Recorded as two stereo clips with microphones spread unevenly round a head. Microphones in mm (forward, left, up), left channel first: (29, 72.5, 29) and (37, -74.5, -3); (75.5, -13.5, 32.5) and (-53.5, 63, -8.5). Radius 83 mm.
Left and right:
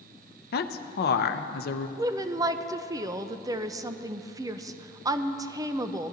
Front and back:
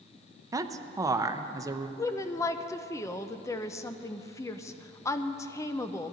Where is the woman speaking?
115° right, 0.5 m.